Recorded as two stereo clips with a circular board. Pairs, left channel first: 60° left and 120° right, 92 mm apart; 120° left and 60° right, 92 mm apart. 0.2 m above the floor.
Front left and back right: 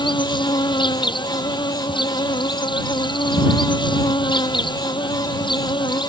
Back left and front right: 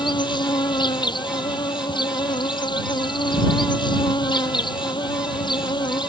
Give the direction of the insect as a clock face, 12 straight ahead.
9 o'clock.